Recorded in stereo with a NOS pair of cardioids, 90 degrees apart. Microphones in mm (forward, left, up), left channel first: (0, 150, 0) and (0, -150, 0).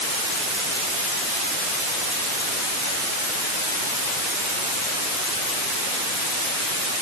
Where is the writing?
No writing in this recording.